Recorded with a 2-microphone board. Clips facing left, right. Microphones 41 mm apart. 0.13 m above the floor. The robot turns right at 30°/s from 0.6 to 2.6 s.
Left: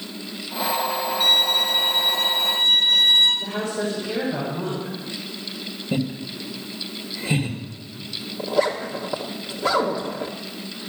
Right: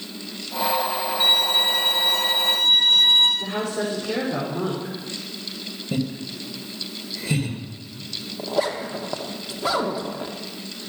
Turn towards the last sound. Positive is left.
turn(degrees=-10)  # may be behind; listen again after turning